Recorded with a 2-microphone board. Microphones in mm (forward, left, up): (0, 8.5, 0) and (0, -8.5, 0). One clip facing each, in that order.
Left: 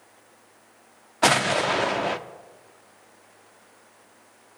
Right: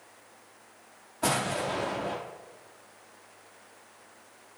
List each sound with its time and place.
1.2 s an explosion: 45° left (ahead or behind), 0.6 m